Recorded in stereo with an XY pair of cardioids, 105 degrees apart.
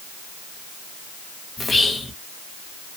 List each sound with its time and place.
1.6 s whispering: 30° left, 0.9 m